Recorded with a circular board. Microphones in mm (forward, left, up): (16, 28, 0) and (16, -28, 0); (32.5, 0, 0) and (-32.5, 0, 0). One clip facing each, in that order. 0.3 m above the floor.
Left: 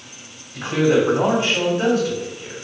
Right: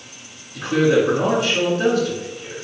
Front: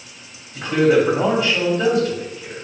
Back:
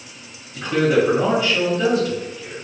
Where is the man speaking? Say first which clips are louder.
Right 1 dB, front 2 dB; 80° left, 1.8 m.